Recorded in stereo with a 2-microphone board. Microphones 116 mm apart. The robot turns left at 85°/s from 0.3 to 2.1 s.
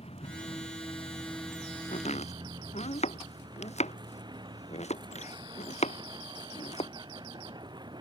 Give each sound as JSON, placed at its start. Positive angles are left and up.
{"t": 0.0, "sound": "a vehicle", "azimuth_deg": 110}
{"t": 1.9, "sound": "chopping", "side_deg": 80}